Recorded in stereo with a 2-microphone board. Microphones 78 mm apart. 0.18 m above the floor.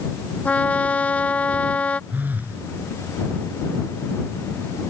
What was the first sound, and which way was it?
A trumpet, 20° left (ahead or behind).